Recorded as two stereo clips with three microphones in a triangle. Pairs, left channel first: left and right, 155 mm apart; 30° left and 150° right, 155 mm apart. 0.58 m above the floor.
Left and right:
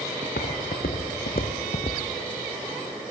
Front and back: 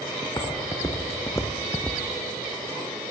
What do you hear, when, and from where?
0.2 s footsteps: 90° left, 3.5 m; by 2.0 s 115° left, 1.6 m